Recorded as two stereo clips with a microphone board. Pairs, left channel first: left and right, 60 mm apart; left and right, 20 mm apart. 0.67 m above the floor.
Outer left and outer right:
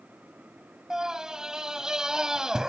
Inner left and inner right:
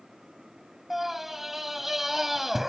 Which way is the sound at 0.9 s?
10° right (ahead or behind).